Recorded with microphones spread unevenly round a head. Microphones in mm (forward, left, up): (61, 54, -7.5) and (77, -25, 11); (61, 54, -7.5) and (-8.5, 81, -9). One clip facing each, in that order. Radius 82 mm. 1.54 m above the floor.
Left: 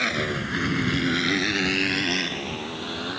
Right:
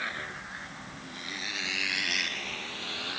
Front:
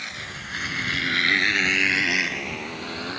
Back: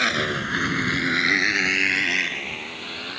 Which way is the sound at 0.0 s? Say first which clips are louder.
Left 11 dB, back 12 dB; 145° left.